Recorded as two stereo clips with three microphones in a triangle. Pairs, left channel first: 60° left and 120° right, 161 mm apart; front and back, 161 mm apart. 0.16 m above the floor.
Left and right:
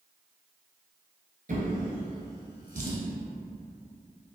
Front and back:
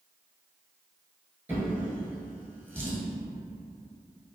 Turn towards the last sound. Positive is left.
turn(degrees=-105)